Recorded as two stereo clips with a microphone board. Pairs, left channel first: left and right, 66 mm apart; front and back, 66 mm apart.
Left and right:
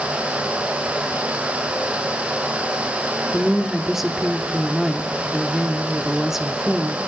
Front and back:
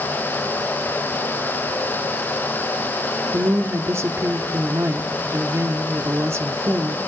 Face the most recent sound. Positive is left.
turn(degrees=-175)